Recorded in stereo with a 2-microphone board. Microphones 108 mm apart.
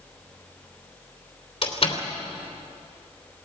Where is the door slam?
55° left (ahead or behind), 3 m.